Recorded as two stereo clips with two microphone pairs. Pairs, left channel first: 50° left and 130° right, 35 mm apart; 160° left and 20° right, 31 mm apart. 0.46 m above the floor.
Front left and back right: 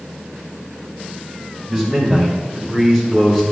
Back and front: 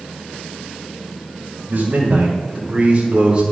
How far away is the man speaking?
About 2.0 m.